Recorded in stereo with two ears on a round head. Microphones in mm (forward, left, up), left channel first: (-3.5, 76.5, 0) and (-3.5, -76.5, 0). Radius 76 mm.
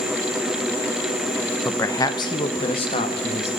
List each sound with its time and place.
1.6 s a man speaking: 10° left (ahead or behind), 0.8 m; by 3.5 s 40° left (ahead or behind), 2 m